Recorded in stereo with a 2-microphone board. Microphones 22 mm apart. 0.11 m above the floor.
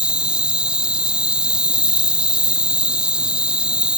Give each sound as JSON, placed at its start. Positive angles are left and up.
{"t": 0.0, "sound": "an insect", "side_deg": -50}